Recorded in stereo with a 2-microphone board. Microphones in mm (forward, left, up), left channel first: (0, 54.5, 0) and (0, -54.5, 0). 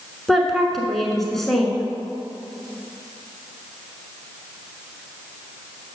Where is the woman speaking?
Centre (ahead or behind), 1.1 m.